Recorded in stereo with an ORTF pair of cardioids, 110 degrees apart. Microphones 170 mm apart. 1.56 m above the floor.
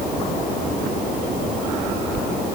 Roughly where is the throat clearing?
I don't hear throat clearing.